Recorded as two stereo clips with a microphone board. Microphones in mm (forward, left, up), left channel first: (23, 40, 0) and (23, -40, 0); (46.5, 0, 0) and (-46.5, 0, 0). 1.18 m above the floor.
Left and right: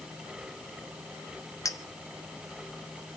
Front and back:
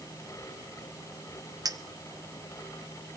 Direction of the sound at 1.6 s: 135° left.